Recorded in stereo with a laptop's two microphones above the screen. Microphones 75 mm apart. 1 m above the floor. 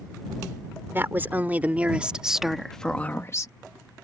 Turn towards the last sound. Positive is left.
turn(degrees=45)  # may be behind; listen again after turning